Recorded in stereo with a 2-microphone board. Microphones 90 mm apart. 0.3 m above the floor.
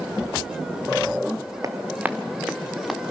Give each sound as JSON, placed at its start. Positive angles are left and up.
{"t": 1.6, "sound": "running footsteps", "side_deg": -35, "distance_m": 0.9}